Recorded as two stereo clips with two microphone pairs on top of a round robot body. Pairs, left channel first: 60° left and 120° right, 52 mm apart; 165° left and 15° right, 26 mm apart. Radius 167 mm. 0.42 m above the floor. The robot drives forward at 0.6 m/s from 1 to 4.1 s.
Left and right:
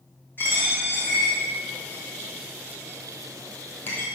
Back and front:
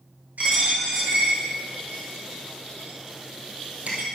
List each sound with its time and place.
0.4 s a dropped coin: 5° left, 4 m